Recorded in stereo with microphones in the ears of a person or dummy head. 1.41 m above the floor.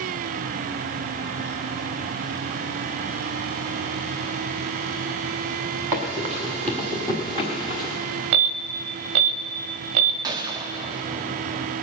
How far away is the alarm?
About 0.8 m.